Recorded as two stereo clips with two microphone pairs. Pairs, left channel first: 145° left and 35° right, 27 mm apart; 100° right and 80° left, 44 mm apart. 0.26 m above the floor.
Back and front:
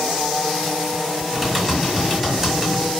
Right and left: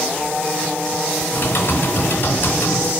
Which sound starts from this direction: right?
Typing on a keyboard, at 1.3 s.